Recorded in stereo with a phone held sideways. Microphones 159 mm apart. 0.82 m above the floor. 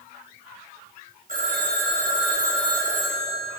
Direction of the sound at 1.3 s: 60° right (ahead or behind).